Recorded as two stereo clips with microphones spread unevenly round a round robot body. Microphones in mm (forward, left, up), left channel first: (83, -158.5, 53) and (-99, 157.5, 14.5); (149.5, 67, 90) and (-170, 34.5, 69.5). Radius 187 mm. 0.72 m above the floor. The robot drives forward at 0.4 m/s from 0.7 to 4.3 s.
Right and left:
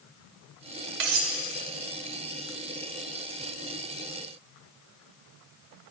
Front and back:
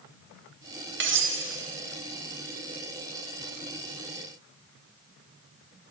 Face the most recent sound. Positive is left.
turn(degrees=150)